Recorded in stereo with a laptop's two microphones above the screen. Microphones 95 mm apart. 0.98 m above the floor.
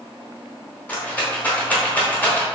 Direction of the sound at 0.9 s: 15° left (ahead or behind).